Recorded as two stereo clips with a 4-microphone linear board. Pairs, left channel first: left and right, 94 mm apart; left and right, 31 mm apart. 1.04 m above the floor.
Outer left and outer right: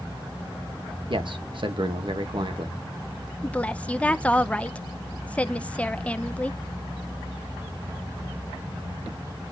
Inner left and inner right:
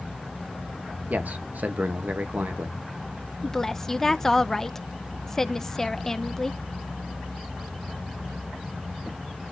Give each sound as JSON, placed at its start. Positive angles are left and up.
{"t": 1.1, "sound": "a man speaking", "side_deg": -60, "distance_m": 1.3}
{"t": 3.4, "sound": "a woman speaking", "side_deg": 15, "distance_m": 0.7}